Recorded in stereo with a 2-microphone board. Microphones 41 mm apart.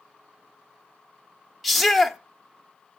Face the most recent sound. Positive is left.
turn(degrees=0)  # may be behind; listen again after turning